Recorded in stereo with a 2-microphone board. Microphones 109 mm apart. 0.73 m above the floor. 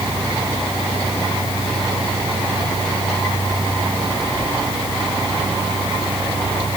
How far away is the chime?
No chime in this recording.